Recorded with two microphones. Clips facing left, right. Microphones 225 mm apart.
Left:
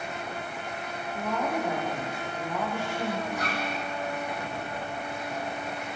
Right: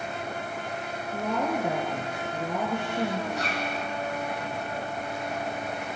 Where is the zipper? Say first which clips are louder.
Right 1 dB; 75° right (ahead or behind), 7 m.